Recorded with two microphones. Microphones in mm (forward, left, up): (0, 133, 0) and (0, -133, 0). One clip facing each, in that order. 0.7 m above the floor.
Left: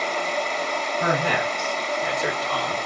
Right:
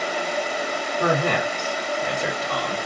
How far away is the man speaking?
About 1.6 m.